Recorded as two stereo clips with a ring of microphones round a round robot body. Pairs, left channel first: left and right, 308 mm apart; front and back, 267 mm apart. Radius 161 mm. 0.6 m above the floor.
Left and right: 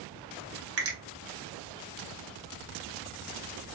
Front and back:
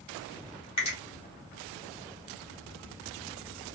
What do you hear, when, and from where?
0.8 s a finger snap: 60° right, 1.0 m